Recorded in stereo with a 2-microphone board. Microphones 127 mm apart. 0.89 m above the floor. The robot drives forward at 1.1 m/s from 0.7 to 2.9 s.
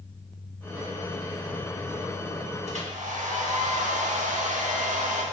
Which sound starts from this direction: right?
A hair dryer, at 2.7 s.